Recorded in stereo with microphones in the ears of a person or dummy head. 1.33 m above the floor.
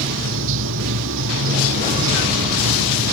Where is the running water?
80° right.